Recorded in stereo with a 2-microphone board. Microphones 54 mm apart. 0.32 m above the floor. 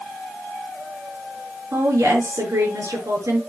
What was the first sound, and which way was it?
A woman speaking, 75° right (ahead or behind).